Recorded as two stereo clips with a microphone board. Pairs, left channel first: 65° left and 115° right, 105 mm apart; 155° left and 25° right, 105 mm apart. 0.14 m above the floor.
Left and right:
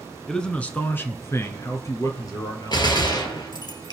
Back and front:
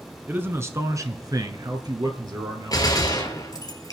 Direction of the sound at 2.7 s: 110° left.